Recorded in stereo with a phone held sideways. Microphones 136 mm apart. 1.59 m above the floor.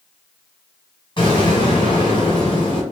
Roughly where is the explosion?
Left.